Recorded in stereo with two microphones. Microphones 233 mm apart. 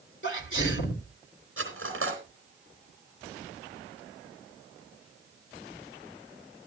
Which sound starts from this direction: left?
A sneeze, at 0.2 s.